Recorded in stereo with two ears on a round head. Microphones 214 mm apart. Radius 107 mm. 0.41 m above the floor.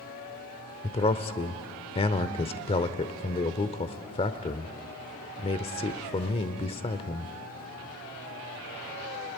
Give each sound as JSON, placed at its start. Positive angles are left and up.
{"t": 0.8, "sound": "a man speaking", "side_deg": 25, "distance_m": 1.0}